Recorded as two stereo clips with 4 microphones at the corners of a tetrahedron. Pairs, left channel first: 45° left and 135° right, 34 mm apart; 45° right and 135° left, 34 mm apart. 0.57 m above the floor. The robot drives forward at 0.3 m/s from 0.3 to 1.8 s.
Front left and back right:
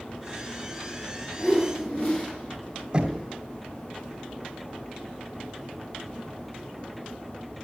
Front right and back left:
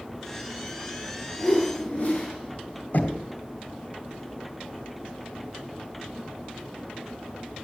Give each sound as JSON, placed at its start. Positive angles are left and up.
{"t": 1.4, "sound": "a whoosh", "azimuth_deg": 5, "distance_m": 9.0}
{"t": 2.9, "sound": "knocking", "azimuth_deg": -70, "distance_m": 2.5}